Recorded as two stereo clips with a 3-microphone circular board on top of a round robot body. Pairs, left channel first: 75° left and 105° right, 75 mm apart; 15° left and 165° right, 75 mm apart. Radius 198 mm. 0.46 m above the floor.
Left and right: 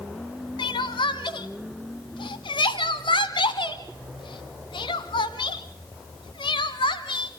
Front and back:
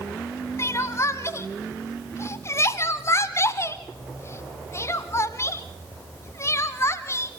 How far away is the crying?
About 1.1 m.